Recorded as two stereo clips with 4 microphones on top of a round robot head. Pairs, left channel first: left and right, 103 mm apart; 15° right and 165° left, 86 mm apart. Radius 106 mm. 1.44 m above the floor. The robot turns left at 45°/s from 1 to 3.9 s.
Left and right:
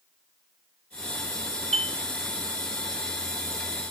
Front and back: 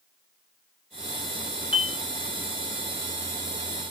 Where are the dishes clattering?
45° right, 1.7 m; by 2.0 s 55° right, 1.7 m.